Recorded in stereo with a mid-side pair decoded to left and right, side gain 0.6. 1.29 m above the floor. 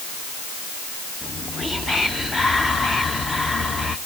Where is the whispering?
20° left, 0.9 m.